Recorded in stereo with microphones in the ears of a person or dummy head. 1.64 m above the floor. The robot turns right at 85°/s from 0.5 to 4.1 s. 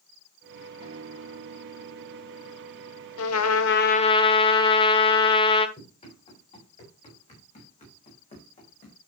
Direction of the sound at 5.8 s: 35° left (ahead or behind).